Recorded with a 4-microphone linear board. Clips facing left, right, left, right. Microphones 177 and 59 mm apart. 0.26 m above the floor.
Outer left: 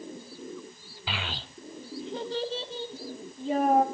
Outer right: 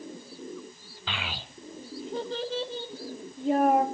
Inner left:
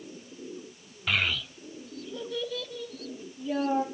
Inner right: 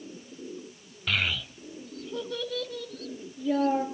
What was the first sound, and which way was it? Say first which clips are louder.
A child speaking: outer left 1 dB, inner left 1 dB; 10° left (ahead or behind).